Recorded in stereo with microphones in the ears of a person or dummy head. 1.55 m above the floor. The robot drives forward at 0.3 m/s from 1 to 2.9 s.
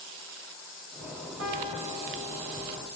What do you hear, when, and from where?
1.4 s a piano: 70° right (ahead or behind), 5.5 m